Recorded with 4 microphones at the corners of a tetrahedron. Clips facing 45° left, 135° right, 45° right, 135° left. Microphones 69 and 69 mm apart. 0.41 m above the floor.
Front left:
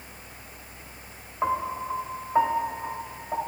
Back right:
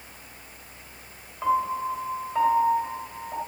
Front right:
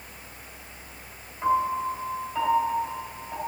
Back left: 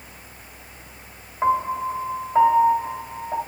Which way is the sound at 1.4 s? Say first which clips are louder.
Back right 3 dB, back left 3 dB; 95° left.